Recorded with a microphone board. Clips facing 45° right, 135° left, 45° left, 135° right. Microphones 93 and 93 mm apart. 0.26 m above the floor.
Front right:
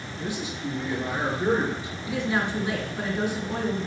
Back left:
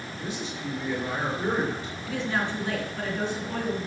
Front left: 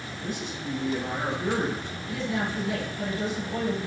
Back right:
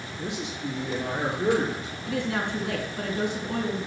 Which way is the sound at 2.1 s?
120° right.